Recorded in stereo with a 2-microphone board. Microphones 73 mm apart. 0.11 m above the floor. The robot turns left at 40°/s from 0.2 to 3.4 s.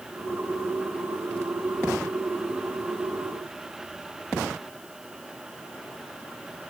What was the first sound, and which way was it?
Only background noise.